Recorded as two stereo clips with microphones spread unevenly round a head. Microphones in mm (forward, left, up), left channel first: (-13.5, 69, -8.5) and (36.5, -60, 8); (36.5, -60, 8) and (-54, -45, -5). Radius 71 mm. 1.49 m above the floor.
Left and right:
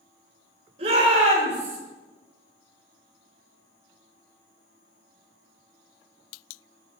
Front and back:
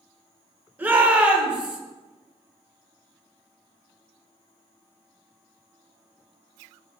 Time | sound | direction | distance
0.8 | a shout | 115° right | 5.5 m